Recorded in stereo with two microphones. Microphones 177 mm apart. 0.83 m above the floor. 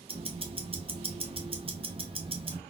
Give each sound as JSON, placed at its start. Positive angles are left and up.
{"t": 0.1, "sound": "ticking", "side_deg": -30, "distance_m": 0.6}